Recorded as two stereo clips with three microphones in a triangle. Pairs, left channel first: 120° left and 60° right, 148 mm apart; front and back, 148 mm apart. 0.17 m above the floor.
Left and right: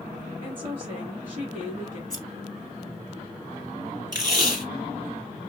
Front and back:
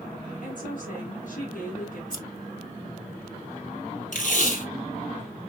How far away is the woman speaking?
About 3 m.